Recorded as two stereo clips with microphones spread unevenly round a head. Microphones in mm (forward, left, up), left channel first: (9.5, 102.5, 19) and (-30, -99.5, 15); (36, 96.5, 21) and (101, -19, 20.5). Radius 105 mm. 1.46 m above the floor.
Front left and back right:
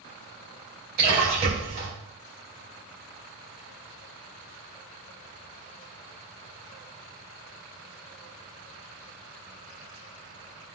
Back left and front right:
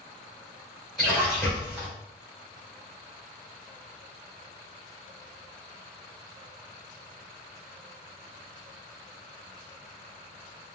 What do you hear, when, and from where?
1.0 s a splash: 150° right, 2.5 m